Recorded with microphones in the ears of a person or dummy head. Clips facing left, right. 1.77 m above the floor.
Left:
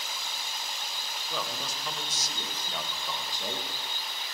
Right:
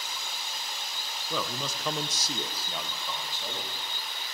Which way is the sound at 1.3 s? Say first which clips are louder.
Right 3 dB; 80° right.